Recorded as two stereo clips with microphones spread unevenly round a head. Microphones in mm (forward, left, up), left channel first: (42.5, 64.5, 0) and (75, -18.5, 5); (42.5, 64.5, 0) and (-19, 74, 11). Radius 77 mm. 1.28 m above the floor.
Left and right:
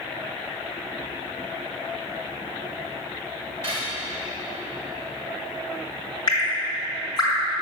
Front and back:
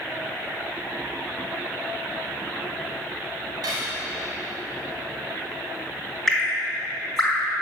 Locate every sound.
3.6 s cutlery clinking: 175° right, 4 m
6.3 s dripping: 80° left, 3.5 m